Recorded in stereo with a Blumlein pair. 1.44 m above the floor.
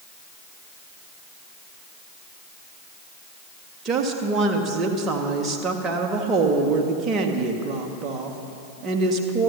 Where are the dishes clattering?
No dishes clattering in this recording.